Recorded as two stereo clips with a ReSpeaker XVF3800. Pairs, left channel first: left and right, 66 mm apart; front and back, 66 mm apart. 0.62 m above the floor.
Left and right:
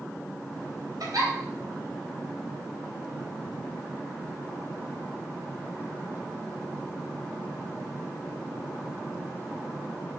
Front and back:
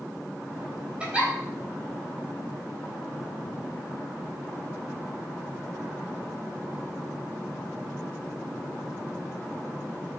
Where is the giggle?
110° right, 3.5 m.